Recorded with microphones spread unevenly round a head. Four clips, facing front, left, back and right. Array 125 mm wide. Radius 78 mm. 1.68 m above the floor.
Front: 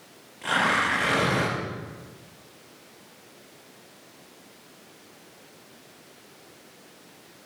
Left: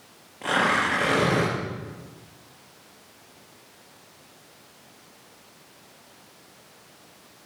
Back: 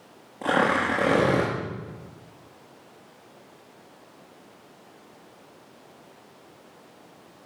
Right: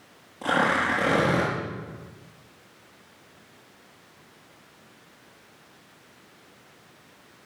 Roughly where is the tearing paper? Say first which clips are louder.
Even, back 2 dB; behind.